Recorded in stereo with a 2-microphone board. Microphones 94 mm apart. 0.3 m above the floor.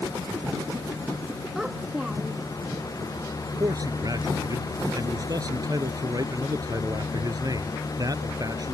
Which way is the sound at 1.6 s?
5° right (ahead or behind).